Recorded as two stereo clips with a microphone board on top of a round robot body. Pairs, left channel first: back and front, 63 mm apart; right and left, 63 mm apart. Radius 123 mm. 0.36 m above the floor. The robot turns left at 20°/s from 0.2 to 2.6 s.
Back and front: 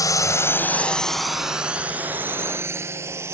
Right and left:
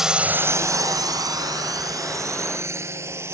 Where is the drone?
170° left; by 3.4 s 45° left.